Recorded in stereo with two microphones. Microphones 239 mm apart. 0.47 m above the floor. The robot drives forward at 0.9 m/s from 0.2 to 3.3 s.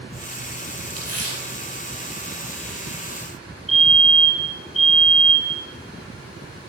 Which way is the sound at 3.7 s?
Centre (ahead or behind).